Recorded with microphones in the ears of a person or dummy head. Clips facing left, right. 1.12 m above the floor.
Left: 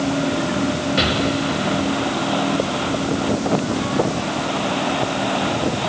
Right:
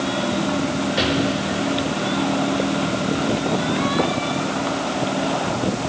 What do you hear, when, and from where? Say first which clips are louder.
1.0 s an explosion: left 1 dB; 5° right (ahead or behind), 4.5 m